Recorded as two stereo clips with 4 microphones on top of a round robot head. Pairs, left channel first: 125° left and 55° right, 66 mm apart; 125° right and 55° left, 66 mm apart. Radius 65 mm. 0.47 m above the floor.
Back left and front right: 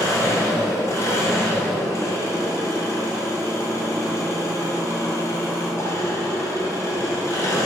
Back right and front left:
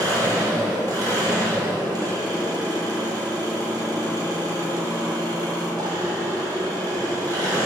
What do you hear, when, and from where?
0.0 s an engine running: 80° left, 2 m